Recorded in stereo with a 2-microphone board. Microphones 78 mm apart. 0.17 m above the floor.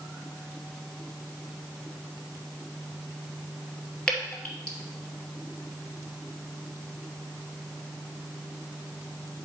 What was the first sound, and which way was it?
Dripping, 10° left (ahead or behind).